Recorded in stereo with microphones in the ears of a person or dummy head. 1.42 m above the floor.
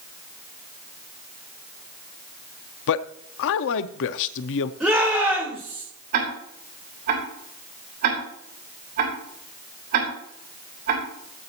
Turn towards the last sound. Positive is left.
turn(degrees=-50)  # may be behind; listen again after turning